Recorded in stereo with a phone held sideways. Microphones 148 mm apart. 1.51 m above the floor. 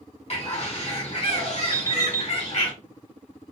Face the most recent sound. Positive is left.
turn(degrees=25)  # may be behind; listen again after turning